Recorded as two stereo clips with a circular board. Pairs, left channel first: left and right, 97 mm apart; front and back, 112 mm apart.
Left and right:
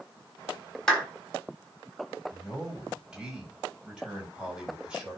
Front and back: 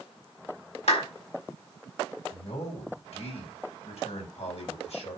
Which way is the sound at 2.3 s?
5° right.